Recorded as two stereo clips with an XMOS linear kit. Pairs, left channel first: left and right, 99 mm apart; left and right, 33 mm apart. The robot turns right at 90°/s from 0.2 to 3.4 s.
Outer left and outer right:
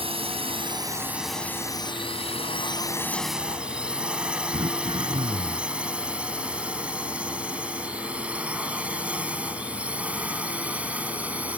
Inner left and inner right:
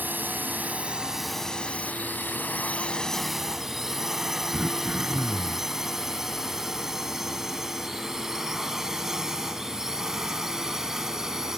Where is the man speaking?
I don't hear a man speaking.